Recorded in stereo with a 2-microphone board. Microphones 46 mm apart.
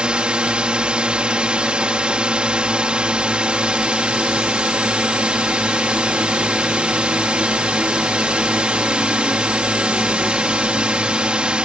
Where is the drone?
25° right (ahead or behind).